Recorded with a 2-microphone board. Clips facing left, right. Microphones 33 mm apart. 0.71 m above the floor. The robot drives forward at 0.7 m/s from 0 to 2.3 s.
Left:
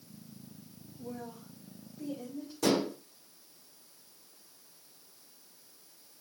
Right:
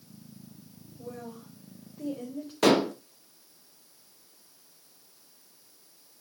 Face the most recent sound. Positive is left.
turn(degrees=-70)  # may be behind; listen again after turning